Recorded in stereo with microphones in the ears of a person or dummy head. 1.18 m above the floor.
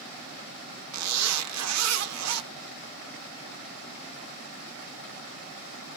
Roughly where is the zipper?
Right.